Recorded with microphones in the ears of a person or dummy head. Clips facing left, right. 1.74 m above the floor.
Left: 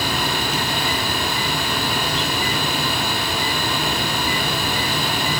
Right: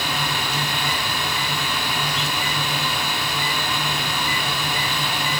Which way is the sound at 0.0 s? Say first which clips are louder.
Left 4 dB; 25° left (ahead or behind).